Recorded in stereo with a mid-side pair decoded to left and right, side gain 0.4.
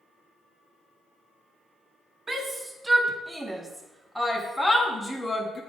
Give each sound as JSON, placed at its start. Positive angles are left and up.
{"t": 2.3, "sound": "a shout", "azimuth_deg": -30, "distance_m": 2.5}